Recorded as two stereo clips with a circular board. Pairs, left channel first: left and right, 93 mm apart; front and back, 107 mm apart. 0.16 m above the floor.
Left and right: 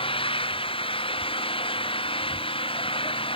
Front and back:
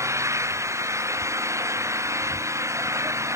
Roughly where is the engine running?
Behind left.